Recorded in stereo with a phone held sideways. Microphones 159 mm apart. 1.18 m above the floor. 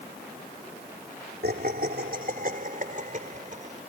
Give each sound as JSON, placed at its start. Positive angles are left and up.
{"t": 1.4, "sound": "laughter", "side_deg": -70}